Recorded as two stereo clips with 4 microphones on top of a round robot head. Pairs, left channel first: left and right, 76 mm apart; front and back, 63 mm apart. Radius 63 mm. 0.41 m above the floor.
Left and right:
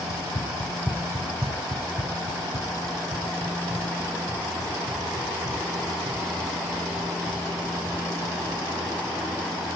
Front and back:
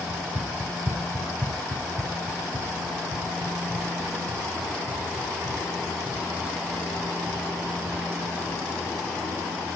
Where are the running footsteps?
115° left, 1.3 m; by 8.6 s 100° right, 9.5 m.